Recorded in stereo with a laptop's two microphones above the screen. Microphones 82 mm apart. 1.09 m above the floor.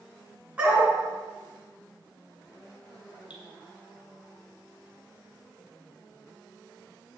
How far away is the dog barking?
About 4 m.